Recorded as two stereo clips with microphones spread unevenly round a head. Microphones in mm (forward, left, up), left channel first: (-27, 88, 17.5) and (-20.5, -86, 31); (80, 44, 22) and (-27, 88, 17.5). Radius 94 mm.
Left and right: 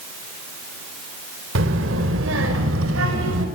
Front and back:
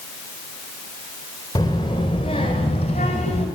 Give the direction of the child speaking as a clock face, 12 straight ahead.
3 o'clock.